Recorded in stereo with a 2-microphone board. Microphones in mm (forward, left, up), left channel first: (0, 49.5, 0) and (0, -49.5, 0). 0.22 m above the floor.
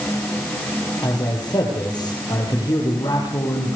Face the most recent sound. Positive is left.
turn(degrees=45)  # may be behind; listen again after turning